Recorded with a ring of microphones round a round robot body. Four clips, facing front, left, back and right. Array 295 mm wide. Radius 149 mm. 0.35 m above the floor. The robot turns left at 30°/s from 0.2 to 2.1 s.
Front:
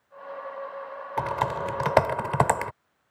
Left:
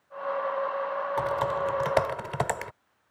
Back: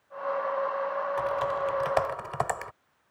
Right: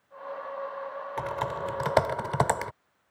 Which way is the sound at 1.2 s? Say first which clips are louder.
Left 3 dB, front 5 dB; 10° left.